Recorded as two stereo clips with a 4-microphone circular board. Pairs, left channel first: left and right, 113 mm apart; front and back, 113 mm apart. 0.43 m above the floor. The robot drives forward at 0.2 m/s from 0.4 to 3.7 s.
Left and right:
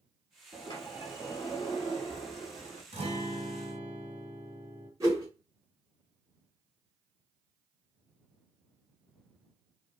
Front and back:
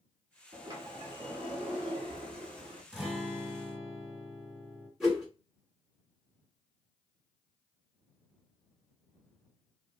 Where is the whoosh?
95° right, 1.2 m.